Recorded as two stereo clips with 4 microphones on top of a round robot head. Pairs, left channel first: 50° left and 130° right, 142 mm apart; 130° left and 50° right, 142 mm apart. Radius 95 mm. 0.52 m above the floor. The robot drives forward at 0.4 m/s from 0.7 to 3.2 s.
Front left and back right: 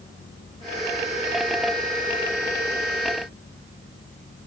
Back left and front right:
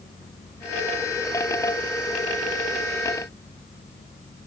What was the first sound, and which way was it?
Only background noise.